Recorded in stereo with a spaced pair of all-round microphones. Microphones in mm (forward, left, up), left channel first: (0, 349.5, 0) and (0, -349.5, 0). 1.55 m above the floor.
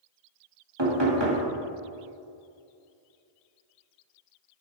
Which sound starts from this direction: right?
Knocking, at 0.8 s.